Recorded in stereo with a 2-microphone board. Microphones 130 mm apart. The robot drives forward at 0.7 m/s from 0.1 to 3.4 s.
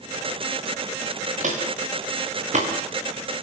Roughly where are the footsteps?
Right.